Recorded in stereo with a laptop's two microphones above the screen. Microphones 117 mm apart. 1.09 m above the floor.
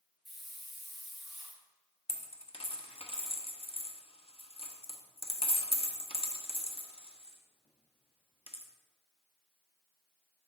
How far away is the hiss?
About 2 m.